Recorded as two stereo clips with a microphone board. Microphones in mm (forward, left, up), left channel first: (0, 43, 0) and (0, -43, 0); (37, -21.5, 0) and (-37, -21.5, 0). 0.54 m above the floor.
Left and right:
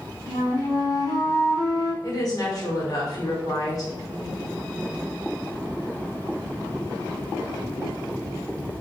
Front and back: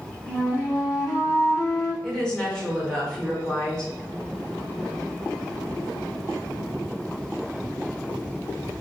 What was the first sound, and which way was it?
A flute, 45° left.